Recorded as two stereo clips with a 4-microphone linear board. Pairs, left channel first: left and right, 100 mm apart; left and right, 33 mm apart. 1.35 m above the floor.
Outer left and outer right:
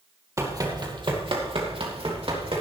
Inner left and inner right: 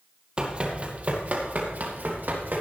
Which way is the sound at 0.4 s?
30° right (ahead or behind).